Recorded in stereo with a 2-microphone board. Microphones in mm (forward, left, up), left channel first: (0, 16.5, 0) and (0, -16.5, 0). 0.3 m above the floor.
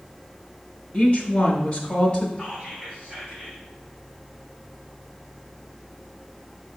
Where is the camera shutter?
I don't hear a camera shutter.